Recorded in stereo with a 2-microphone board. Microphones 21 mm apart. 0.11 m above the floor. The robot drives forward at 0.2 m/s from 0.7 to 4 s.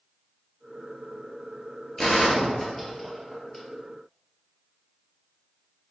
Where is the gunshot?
30° left (ahead or behind), 1.4 m; by 3.6 s 25° left (ahead or behind), 1.6 m.